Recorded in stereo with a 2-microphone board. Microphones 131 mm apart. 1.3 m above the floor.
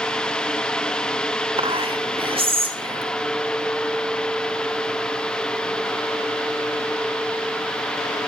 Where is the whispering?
40° right (ahead or behind), 1.4 m.